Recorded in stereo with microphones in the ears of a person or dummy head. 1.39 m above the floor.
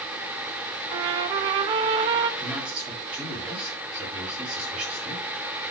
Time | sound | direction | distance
0.9 | a trumpet | 25° right (ahead or behind) | 0.8 m
2.4 | a man speaking | 5° right (ahead or behind) | 8 m